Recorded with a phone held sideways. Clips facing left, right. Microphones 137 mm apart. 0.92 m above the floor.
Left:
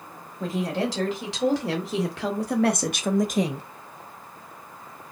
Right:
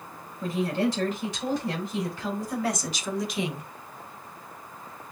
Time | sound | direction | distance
0.4 | a woman speaking | 80° left | 2 m